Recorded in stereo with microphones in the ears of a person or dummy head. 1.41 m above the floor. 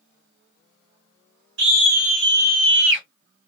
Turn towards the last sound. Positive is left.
turn(degrees=-65)  # may be behind; listen again after turning